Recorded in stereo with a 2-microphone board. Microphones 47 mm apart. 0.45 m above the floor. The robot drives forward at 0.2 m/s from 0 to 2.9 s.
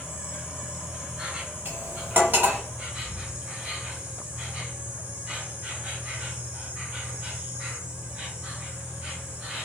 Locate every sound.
0.0 s an insect: 30° right (ahead or behind), 1.4 m; by 9.7 s 20° right (ahead or behind), 1.9 m
1.6 s cutlery clinking: 50° right (ahead or behind), 1.3 m; by 2.6 s 45° right (ahead or behind), 1.4 m